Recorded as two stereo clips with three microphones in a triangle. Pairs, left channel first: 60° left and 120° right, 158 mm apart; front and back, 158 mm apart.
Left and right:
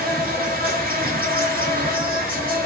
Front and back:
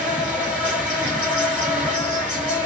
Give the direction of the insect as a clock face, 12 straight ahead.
3 o'clock.